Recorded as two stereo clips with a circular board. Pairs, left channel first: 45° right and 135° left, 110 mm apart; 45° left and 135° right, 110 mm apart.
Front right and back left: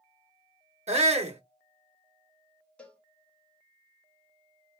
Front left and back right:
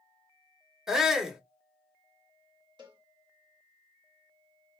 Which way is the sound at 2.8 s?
120° right.